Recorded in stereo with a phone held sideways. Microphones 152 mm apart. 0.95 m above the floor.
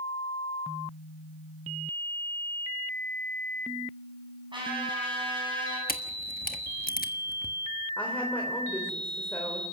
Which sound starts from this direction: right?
A trumpet, at 4.5 s.